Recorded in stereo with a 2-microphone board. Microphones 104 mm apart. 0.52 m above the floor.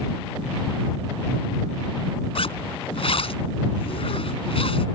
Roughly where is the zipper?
Left.